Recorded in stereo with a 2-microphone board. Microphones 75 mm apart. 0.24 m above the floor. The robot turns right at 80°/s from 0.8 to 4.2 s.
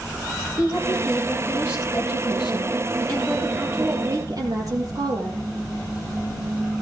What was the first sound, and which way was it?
A woman speaking, 45° right.